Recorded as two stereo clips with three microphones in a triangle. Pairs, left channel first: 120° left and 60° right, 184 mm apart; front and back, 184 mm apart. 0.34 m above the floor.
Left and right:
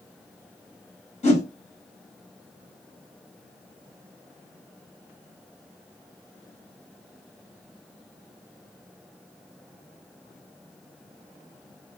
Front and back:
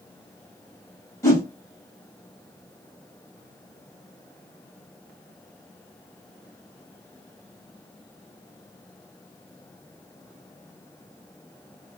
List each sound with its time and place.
1.2 s a whoosh: 70° left, 1.6 m